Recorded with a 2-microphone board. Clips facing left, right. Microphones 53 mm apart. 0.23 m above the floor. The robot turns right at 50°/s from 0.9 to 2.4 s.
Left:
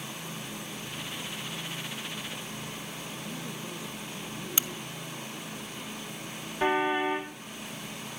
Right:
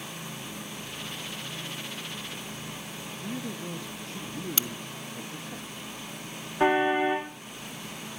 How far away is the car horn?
About 6 m.